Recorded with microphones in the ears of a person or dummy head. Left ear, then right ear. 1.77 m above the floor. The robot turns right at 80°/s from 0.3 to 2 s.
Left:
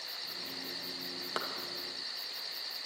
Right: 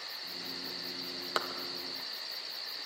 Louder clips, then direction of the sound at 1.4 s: Right 4 dB; 20° right (ahead or behind).